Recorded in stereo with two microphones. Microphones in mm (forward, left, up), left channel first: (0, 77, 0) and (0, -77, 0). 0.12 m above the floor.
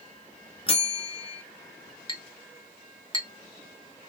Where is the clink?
35° left (ahead or behind), 1.0 m.